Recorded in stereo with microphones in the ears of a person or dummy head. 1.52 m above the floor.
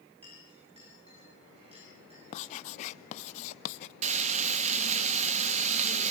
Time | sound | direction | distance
0.2 | a clink | 35° right (ahead or behind) | 9 m
2.3 | writing | 45° left (ahead or behind) | 0.6 m
4.0 | frying | 40° right (ahead or behind) | 1.1 m